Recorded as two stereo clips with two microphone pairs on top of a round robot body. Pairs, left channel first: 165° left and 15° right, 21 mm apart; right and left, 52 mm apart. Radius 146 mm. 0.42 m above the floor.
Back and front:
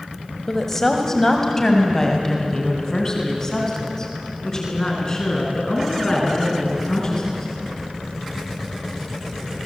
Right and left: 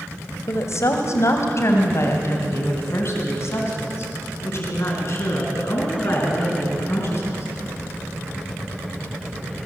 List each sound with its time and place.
0.5 s a woman speaking: 115° right, 2.5 m; by 7.5 s 130° right, 6.5 m